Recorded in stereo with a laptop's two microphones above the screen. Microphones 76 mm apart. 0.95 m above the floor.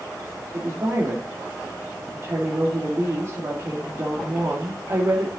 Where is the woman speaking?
40° right (ahead or behind), 2.5 m.